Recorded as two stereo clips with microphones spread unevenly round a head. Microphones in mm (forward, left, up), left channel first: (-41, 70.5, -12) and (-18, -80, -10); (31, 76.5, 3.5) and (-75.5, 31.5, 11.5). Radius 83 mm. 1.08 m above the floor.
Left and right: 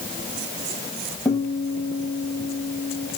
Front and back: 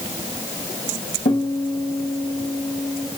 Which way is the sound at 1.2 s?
15° left.